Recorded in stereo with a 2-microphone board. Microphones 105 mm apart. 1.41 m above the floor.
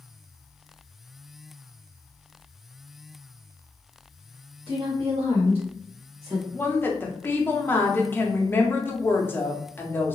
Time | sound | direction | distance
4.7 | a woman speaking | 70° right (ahead or behind) | 1.8 m
6.5 | a woman speaking | 20° left (ahead or behind) | 0.6 m